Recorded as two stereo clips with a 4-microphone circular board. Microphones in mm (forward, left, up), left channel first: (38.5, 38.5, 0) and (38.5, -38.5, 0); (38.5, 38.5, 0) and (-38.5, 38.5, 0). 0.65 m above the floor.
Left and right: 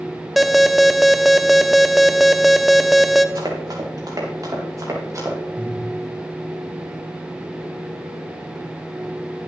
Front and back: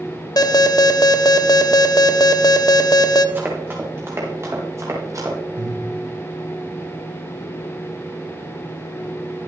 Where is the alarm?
Straight ahead, 0.9 m.